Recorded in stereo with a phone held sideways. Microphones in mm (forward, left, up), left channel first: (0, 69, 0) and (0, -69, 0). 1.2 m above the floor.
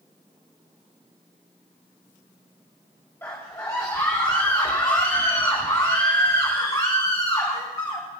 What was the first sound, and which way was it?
A scream, 15° left (ahead or behind).